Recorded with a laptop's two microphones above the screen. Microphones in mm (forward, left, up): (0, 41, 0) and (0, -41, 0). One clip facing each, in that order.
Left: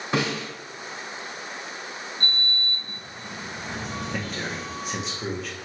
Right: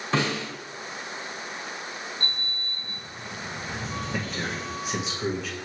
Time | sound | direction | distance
0.1 | a snare drum | 10° left (ahead or behind) | 1.4 m
2.2 | a sliding door | 65° left (ahead or behind) | 1.7 m
4.1 | a man speaking | centre (ahead or behind) | 0.6 m